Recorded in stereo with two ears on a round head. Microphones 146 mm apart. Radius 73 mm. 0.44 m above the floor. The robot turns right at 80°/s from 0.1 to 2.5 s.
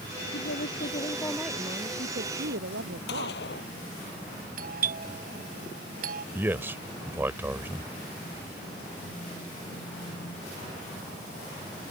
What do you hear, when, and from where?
0.3 s a woman speaking: 90° left; by 3.4 s 95° right
3.1 s a gunshot: 75° left (ahead or behind)
4.6 s a doorbell: 60° right (ahead or behind)
6.3 s a man speaking: 15° right (ahead or behind)